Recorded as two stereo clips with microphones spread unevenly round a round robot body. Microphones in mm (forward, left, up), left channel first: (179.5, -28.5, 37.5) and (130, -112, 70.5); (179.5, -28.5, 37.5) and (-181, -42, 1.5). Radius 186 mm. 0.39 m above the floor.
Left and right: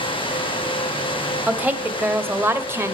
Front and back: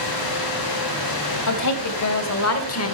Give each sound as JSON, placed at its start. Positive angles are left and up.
{"t": 1.5, "sound": "a woman speaking", "azimuth_deg": -40, "distance_m": 2.5}